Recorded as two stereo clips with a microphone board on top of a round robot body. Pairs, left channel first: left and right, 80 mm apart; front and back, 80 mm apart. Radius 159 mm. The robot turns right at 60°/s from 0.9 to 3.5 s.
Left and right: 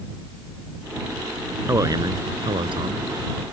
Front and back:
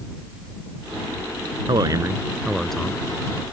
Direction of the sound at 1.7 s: 150° right.